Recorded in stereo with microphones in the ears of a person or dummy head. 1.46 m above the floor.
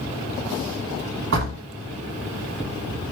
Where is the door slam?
70° right (ahead or behind), 1.9 m.